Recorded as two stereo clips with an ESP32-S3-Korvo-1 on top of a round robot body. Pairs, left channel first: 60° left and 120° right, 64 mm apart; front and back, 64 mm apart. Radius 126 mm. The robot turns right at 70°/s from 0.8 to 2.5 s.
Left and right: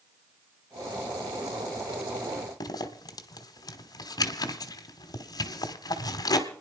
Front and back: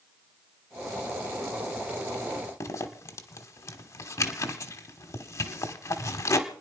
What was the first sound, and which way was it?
A zipper, 40° left.